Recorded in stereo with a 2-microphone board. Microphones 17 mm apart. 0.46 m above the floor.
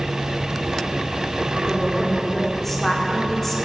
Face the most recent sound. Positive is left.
turn(degrees=20)  # may be behind; listen again after turning